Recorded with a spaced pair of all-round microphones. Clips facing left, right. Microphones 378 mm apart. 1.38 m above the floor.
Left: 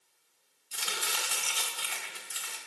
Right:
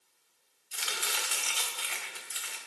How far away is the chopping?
About 1.9 m.